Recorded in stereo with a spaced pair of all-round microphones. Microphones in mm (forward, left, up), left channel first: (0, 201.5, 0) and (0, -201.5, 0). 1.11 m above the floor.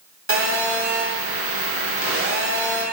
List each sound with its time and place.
0.3 s a phone buzzing: 35° right (ahead or behind), 0.9 m